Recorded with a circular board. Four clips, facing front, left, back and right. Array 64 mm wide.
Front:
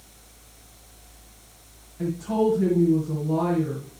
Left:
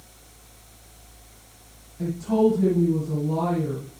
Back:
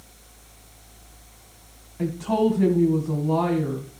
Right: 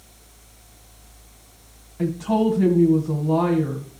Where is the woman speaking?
125° right, 2.5 m.